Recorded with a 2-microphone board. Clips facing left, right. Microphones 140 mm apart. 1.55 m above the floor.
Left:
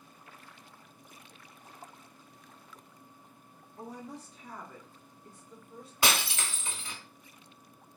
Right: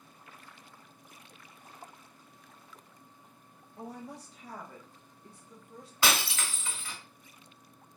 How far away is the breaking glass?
About 1.5 m.